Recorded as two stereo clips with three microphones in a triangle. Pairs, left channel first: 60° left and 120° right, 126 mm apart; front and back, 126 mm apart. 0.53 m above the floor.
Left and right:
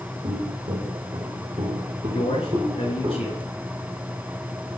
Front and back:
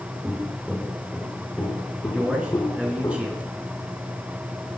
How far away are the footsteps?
About 3.5 m.